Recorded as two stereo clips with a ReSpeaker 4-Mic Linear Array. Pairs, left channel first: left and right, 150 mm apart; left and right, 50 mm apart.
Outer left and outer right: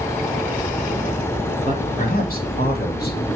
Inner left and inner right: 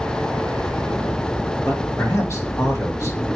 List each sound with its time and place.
1.6 s a man speaking: 60° left (ahead or behind), 2.5 m; by 3.3 s 80° left, 3 m